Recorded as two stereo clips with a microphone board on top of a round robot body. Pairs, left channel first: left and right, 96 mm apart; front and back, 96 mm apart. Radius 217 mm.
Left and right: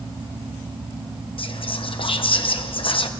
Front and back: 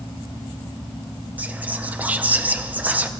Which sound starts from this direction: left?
Whispering, at 1.4 s.